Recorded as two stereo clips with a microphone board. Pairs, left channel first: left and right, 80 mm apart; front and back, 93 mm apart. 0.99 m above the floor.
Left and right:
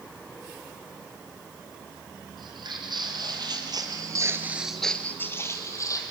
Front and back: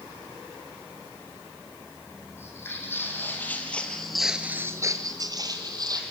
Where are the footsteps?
65° right, 3.5 m; by 6.0 s 135° left, 2.5 m.